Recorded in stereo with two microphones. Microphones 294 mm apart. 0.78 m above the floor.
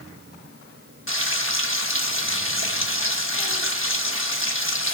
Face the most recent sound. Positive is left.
turn(degrees=45)  # may be behind; listen again after turning